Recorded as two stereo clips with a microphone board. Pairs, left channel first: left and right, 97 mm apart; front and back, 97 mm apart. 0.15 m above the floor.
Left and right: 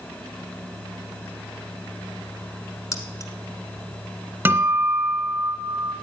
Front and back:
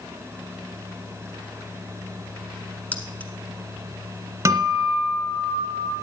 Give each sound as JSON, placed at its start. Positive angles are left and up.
{"t": 2.9, "sound": "keys jangling", "azimuth_deg": 65, "distance_m": 1.2}
{"t": 4.5, "sound": "a guitar", "azimuth_deg": -145, "distance_m": 1.8}